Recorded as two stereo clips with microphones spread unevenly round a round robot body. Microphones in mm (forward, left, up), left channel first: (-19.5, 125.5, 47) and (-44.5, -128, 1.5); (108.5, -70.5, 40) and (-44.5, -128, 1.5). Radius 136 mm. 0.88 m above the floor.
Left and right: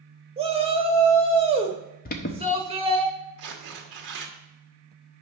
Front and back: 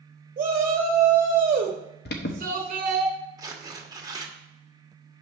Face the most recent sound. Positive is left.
turn(degrees=-90)